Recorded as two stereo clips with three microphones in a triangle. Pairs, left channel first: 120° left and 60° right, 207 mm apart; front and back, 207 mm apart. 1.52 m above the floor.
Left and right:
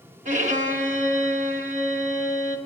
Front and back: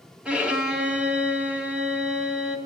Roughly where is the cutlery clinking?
No cutlery clinking in this recording.